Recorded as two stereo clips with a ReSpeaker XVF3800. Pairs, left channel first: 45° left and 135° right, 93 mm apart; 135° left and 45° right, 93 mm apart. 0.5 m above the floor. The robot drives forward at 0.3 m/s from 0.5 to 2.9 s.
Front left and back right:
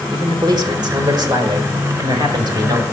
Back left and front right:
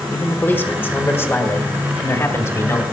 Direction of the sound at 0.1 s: 165° right.